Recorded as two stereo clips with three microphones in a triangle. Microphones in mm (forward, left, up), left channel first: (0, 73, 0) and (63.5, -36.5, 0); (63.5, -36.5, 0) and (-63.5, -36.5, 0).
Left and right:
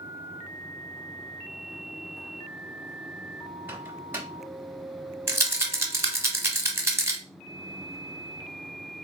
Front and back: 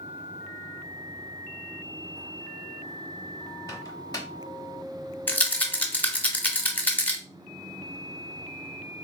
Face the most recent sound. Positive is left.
turn(degrees=-50)